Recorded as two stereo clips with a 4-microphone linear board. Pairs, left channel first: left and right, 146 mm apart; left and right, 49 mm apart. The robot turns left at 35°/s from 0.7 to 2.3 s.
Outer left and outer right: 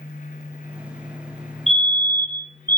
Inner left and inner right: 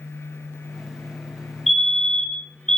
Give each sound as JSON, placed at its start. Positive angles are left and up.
{"t": 1.7, "sound": "a fire alarm", "side_deg": 0, "distance_m": 1.8}